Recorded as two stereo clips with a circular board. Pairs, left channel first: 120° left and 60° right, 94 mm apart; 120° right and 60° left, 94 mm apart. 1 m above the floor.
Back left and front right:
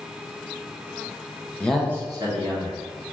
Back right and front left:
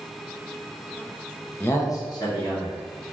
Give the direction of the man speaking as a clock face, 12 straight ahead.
6 o'clock.